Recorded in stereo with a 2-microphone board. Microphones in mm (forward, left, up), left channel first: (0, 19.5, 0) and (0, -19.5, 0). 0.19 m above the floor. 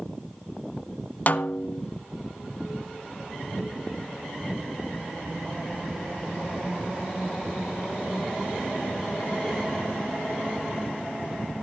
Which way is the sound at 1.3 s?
45° left (ahead or behind).